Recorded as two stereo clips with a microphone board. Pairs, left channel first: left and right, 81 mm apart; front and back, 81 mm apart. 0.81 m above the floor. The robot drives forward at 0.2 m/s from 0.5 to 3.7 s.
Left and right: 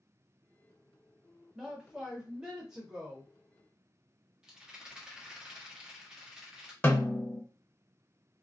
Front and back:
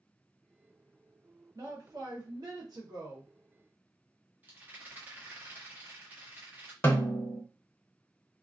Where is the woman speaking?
170° right, 1.0 m.